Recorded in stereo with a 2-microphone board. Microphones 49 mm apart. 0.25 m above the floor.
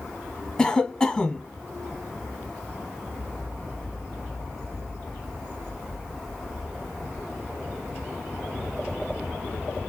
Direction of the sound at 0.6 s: 15° left (ahead or behind).